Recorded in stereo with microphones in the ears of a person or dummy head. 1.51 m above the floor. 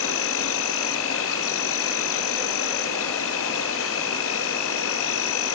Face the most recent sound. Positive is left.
turn(degrees=60)  # may be behind; listen again after turning